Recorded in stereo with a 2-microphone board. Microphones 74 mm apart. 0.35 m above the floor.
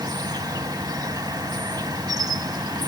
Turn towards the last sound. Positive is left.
turn(degrees=-60)  # may be behind; listen again after turning